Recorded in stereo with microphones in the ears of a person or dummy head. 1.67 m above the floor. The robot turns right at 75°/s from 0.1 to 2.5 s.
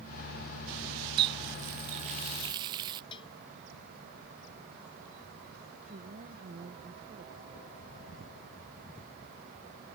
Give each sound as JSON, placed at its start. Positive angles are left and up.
{"t": 1.2, "sound": "a running tap", "azimuth_deg": -145}
{"t": 3.1, "sound": "a bell", "side_deg": 30}
{"t": 5.8, "sound": "a woman speaking", "side_deg": -35}